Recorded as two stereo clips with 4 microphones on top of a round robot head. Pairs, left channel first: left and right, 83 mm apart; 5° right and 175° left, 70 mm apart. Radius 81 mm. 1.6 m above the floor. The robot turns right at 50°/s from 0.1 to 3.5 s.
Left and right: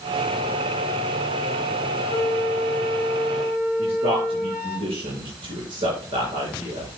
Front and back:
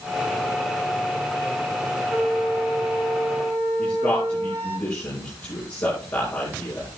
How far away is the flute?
About 2.5 m.